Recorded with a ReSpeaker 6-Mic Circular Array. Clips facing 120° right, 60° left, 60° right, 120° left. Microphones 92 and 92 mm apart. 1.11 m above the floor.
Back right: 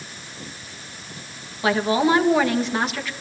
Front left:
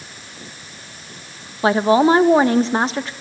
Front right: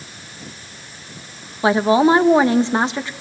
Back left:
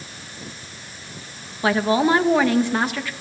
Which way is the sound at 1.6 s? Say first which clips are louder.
Front left 5 dB, front right 4 dB; 5° left.